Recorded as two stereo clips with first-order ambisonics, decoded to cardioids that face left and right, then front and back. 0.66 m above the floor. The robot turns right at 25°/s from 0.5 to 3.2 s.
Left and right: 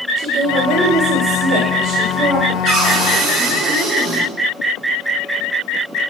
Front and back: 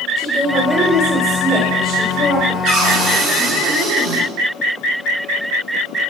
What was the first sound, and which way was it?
A woman speaking, 130° right.